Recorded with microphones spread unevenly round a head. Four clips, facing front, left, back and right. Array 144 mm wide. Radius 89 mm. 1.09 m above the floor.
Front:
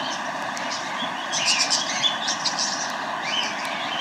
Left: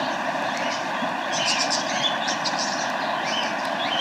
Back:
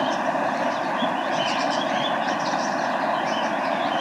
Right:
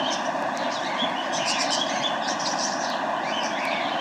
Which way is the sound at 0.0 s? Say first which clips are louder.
Even, back 6 dB; 170° right.